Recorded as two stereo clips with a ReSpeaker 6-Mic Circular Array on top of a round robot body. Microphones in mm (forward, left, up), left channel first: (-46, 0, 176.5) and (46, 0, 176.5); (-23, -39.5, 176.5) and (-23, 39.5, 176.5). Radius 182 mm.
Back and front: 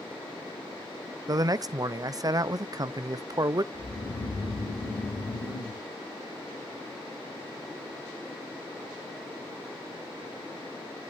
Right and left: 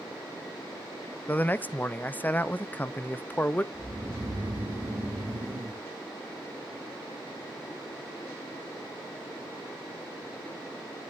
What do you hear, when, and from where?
1.3 s a man speaking: 30° right, 0.8 m
3.7 s snoring: 155° left, 2.5 m